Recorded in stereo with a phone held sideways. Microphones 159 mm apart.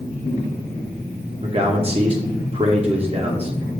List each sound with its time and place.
1.4 s a man speaking: 40° right (ahead or behind), 0.5 m